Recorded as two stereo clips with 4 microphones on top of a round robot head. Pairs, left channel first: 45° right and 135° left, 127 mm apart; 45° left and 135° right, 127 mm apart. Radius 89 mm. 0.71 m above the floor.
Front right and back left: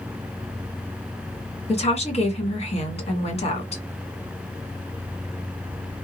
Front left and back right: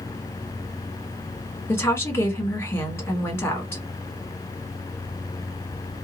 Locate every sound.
1.7 s a woman speaking: 25° right, 1.6 m